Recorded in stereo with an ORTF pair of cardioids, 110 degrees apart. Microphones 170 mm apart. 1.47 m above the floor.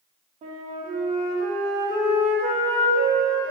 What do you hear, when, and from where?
0.4 s a flute: 45° right, 2.5 m